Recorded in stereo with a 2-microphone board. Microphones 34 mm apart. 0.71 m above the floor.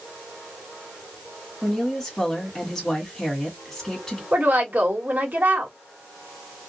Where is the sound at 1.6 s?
10° left (ahead or behind), 1.9 m.